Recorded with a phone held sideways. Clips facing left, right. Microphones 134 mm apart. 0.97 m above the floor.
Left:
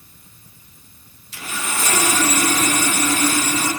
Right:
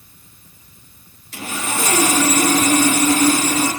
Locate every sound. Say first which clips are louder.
1.3 s sawing: right 3 dB; 50° right (ahead or behind), 6.5 m